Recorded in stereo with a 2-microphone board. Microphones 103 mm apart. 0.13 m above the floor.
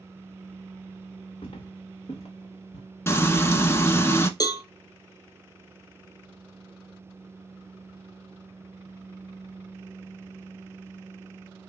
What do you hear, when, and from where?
1.4 s footsteps: 70° left (ahead or behind), 1.1 m; by 2.9 s 90° left, 1.9 m
3.1 s frying: 25° left (ahead or behind), 0.7 m
4.4 s a cowbell: 40° left (ahead or behind), 0.6 m